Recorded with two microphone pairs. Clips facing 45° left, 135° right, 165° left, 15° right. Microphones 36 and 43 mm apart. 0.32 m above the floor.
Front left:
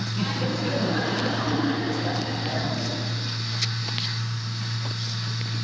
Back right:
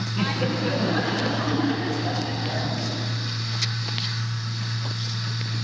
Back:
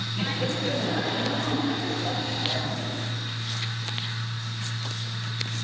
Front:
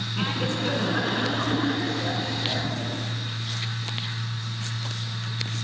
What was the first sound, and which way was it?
Laughter, 65° right.